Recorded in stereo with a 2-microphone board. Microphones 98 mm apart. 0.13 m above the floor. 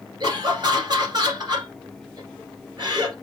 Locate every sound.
0.2 s laughter: 45° right (ahead or behind), 2 m